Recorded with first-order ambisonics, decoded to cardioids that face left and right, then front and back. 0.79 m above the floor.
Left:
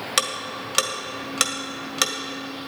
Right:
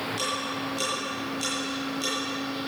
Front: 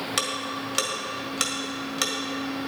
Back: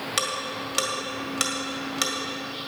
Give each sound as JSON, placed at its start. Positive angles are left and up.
{"t": 0.2, "sound": "ticking", "azimuth_deg": 90, "distance_m": 1.6}